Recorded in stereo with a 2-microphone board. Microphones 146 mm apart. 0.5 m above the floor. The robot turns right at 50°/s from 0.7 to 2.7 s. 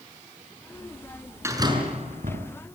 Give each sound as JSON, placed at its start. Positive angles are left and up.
{"t": 1.4, "sound": "a door slam", "azimuth_deg": -160, "distance_m": 5.5}